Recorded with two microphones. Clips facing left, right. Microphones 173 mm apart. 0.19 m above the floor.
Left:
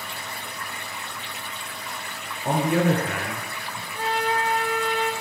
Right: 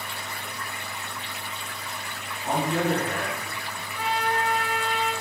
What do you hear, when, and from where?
2.5 s a man speaking: 55° left (ahead or behind), 2.0 m
3.9 s a trumpet: 35° left (ahead or behind), 2 m